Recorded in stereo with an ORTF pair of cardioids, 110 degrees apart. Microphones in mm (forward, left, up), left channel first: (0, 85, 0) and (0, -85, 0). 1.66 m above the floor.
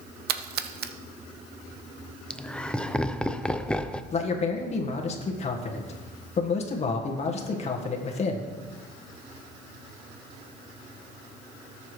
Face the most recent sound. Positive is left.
turn(degrees=40)